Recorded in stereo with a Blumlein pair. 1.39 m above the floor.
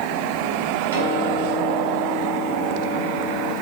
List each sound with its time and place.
0.9 s a piano: 70° right, 5.5 m